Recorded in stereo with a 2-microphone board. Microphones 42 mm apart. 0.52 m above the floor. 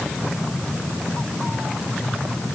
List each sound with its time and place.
Only background noise.